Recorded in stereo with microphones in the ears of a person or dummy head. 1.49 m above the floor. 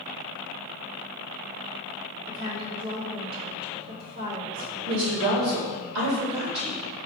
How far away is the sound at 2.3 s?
About 0.9 m.